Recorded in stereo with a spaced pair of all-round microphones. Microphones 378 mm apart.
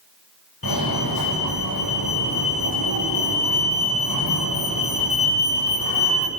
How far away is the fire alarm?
About 9 m.